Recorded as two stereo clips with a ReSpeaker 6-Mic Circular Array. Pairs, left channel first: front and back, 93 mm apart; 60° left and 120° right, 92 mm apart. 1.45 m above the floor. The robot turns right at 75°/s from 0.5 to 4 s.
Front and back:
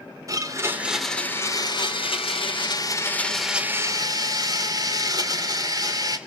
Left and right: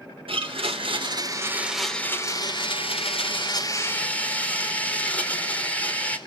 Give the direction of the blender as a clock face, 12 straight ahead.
4 o'clock.